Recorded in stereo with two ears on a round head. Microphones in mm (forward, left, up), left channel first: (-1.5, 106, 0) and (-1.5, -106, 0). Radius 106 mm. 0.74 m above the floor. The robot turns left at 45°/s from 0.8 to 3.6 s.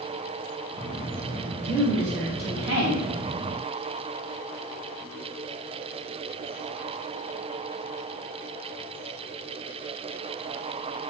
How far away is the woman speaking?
About 0.9 m.